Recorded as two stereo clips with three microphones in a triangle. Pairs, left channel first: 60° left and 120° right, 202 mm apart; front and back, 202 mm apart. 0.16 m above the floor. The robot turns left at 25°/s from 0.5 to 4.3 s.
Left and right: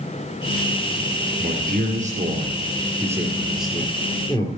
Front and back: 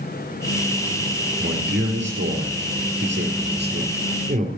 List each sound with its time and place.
1.4 s a man speaking: 155° right, 4 m; by 4.5 s 135° left, 4 m